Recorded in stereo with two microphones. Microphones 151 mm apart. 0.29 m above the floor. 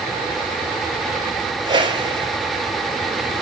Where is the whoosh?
30° right (ahead or behind), 1.4 m.